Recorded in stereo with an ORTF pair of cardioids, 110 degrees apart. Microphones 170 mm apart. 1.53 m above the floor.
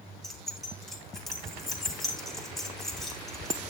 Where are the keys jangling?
Straight ahead, 3 m.